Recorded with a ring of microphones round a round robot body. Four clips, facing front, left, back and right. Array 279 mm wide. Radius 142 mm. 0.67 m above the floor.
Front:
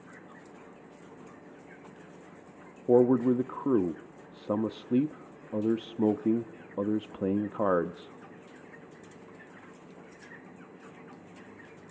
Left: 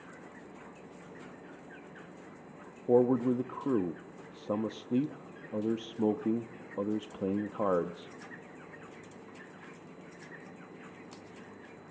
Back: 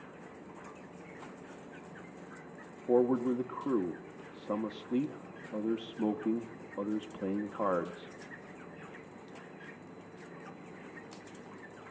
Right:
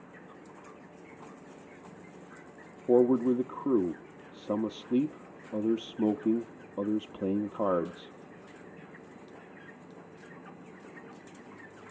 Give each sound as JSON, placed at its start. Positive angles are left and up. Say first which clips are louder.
{"t": 2.9, "sound": "a man speaking", "louder": "right 2 dB, front 6 dB", "azimuth_deg": -15, "distance_m": 0.6}